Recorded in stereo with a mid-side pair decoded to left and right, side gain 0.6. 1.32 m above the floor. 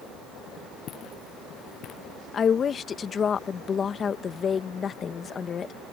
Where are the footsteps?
50° left.